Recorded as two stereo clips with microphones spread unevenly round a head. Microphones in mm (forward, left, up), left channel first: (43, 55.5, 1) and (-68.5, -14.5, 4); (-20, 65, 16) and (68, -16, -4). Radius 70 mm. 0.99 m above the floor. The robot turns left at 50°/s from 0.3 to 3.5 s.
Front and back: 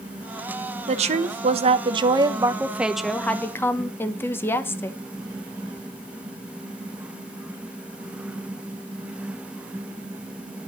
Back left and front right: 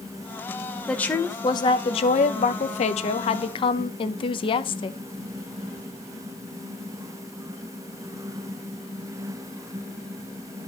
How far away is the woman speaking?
About 1.0 m.